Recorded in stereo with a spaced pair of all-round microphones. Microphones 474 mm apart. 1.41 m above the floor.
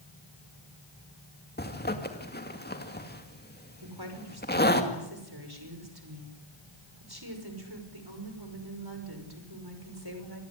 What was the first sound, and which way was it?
A zipper, 20° left (ahead or behind).